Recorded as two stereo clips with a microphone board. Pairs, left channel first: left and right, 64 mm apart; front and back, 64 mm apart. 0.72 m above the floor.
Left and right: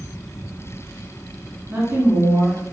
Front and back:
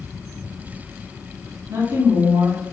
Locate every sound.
1.7 s a woman speaking: 150° right, 1.8 m